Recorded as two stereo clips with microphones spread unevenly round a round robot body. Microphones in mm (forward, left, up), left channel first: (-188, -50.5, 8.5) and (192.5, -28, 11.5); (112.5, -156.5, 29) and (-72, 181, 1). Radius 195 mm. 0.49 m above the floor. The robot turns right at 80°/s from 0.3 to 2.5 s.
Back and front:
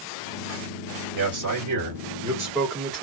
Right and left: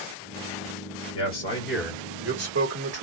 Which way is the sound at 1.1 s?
15° right.